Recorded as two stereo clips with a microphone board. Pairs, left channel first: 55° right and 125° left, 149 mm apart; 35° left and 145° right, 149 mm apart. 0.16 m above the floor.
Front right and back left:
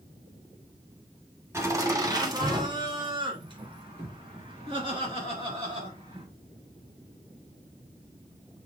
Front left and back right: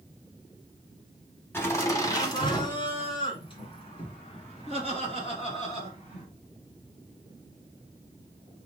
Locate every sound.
1.5 s laughter: 85° left, 1.1 m; by 6.2 s 75° left, 3 m